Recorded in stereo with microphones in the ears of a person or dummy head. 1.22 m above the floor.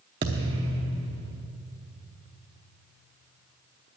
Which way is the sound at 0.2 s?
25° right (ahead or behind).